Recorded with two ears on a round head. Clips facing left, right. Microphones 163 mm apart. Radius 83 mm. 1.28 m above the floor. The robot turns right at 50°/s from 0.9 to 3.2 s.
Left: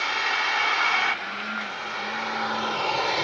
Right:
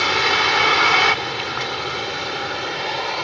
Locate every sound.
0.0 s a vehicle: 110° right; by 3.2 s 5° left